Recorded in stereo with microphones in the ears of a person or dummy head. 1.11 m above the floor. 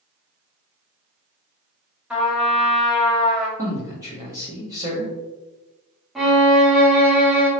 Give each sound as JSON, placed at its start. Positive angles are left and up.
{"t": 2.1, "sound": "a trumpet", "side_deg": -10, "distance_m": 1.1}
{"t": 3.6, "sound": "a man speaking", "side_deg": -25, "distance_m": 1.1}
{"t": 6.2, "sound": "a violin", "side_deg": -10, "distance_m": 0.9}